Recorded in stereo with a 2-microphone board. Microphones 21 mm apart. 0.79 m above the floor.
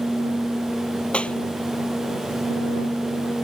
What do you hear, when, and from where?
1.1 s a clap: 85° left